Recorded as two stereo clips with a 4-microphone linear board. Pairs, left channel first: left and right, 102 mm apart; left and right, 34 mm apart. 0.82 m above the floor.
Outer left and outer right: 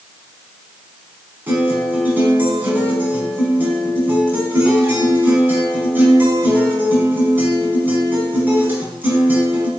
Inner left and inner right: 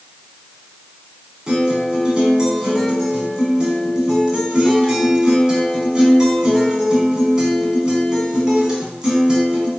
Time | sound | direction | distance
1.5 | a guitar | 20° right (ahead or behind) | 4 m